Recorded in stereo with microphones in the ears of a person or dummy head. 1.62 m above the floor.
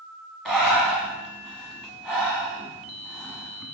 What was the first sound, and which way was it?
Breathing, 5° left (ahead or behind).